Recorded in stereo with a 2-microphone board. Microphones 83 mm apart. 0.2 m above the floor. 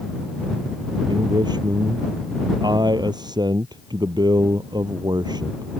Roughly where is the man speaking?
Right.